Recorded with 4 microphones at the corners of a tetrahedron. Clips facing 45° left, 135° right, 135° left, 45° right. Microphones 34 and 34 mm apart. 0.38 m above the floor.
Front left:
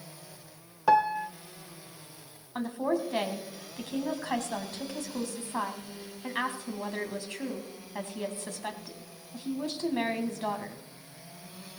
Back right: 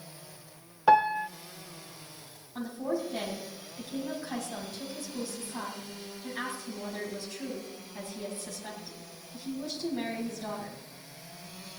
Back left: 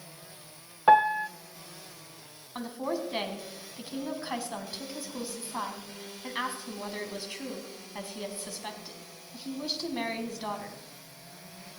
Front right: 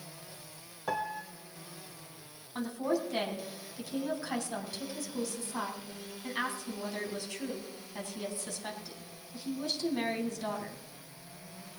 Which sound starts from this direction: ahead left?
A woman speaking, at 2.5 s.